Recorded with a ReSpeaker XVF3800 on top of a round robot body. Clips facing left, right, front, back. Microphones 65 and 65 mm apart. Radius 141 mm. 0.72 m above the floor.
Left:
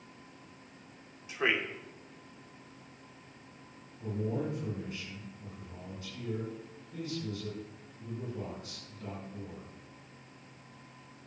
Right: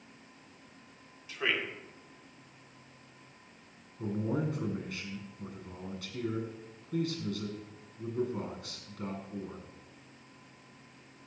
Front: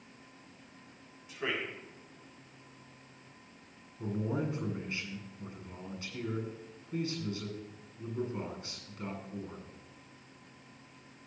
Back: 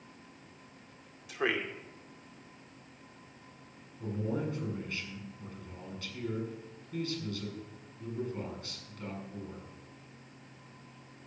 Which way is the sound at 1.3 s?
160° left.